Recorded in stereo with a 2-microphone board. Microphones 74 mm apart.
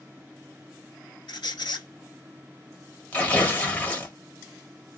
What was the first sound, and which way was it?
A squeak, 85° left.